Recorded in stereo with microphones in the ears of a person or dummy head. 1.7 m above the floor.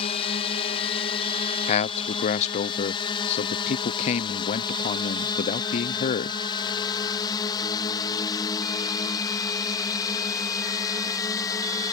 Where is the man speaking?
40° left (ahead or behind).